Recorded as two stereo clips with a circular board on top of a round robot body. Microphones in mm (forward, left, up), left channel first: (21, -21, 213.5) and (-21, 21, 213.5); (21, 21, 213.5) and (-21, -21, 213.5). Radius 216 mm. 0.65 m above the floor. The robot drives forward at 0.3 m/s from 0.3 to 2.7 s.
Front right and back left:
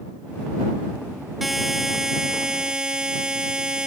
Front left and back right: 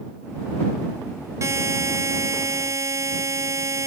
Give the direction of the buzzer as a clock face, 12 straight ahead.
5 o'clock.